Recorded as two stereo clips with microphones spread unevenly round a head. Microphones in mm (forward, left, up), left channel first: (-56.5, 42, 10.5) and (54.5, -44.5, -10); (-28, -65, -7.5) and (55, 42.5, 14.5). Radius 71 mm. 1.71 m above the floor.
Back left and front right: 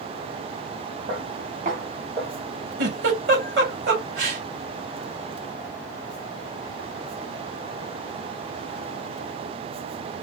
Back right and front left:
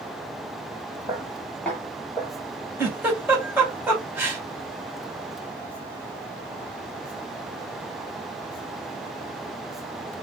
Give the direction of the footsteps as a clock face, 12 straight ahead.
1 o'clock.